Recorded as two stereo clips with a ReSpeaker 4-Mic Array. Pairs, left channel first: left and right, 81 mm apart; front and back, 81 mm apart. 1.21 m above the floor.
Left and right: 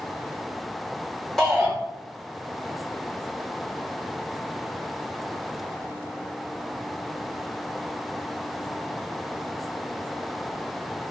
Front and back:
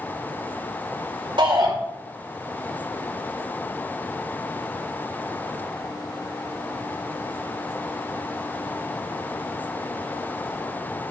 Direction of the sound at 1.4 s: 175° left.